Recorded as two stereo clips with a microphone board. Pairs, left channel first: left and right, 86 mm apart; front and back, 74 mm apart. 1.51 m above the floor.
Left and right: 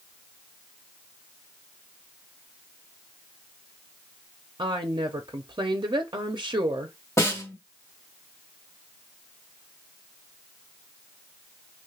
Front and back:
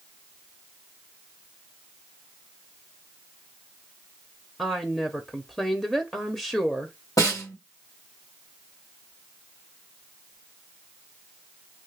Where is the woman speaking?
85° right, 0.6 m.